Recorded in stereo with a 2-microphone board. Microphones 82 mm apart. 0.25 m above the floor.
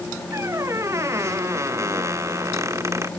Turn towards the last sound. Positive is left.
turn(degrees=-40)  # may be behind; listen again after turning